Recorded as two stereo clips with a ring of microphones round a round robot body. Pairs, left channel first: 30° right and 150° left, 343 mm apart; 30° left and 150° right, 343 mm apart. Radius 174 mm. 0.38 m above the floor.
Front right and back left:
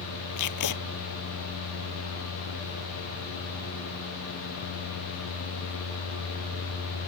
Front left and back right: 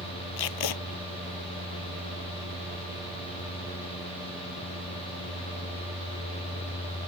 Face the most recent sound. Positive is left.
turn(degrees=10)